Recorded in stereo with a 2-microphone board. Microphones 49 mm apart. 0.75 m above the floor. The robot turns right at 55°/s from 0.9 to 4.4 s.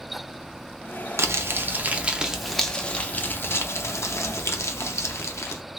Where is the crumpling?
70° right (ahead or behind), 0.6 m; by 5.6 s 75° left (ahead or behind), 0.6 m.